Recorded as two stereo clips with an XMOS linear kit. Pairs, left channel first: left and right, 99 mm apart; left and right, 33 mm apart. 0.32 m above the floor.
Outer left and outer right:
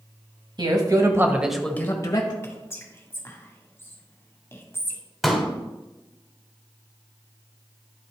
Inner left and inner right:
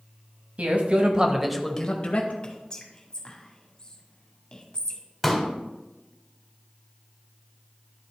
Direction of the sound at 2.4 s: 25° left (ahead or behind).